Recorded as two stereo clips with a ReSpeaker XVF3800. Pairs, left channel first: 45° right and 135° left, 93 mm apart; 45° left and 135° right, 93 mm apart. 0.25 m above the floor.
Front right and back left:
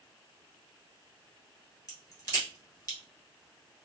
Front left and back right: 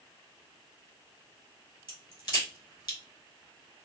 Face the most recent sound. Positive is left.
turn(degrees=10)